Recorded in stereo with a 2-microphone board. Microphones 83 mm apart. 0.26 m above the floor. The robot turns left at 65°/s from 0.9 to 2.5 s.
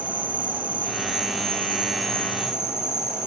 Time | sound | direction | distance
0.0 | an insect | 110° right | 5.5 m